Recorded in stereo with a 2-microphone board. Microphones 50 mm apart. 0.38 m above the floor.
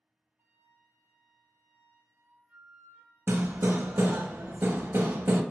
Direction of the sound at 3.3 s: 55° right (ahead or behind).